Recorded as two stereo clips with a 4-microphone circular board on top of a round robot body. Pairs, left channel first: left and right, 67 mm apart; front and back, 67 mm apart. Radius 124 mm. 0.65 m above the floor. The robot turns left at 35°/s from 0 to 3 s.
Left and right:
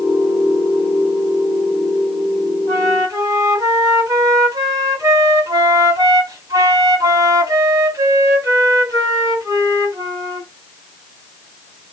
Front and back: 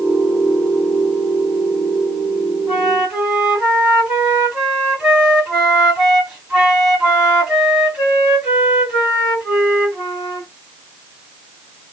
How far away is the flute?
About 2 m.